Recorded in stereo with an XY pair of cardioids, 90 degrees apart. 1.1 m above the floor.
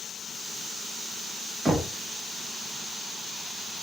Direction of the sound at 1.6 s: 25° right.